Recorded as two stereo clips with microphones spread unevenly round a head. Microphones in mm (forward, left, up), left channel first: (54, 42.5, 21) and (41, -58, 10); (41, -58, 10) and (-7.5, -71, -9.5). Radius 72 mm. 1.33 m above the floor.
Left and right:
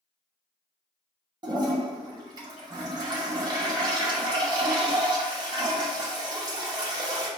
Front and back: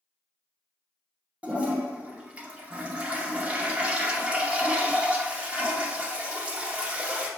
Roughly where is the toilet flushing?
Right.